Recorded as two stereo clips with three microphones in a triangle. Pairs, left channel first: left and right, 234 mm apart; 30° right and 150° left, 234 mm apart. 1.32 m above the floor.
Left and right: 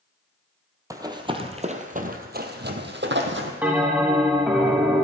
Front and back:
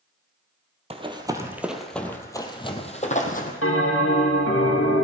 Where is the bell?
5° right, 2 m.